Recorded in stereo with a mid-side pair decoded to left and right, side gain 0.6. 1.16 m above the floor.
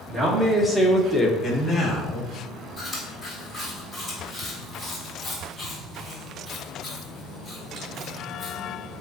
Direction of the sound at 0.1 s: 5° right.